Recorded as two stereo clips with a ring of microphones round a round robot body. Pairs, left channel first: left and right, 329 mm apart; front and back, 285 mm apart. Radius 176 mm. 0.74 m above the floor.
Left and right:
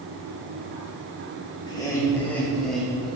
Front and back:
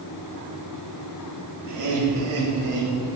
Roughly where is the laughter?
Behind.